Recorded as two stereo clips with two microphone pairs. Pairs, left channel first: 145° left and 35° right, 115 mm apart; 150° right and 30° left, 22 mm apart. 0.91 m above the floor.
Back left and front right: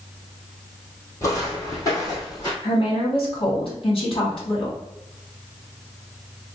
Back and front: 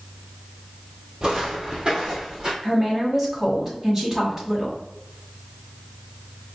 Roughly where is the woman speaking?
Left.